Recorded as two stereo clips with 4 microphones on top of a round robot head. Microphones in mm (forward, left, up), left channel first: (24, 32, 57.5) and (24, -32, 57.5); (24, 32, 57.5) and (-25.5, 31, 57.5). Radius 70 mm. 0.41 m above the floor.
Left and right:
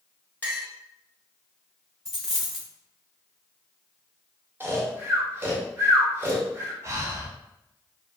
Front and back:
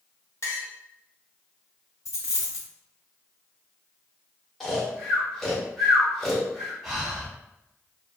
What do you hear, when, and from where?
0.4 s a clink: 25° left, 1.5 m
2.0 s a dropped coin: 5° left, 1.9 m
4.6 s snoring: 70° right, 1.0 m
6.8 s breathing: 90° right, 1.0 m